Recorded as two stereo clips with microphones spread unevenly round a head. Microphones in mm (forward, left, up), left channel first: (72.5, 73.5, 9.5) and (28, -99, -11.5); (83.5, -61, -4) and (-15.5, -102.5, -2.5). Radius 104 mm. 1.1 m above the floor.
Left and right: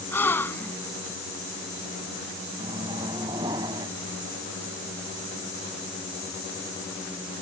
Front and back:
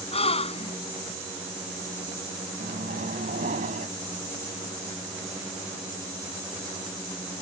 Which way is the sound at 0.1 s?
Straight ahead.